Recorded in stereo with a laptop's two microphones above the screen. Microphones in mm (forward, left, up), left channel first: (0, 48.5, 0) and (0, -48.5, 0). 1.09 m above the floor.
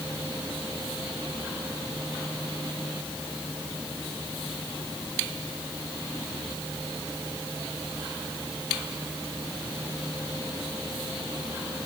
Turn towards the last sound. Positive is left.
No sound to turn to.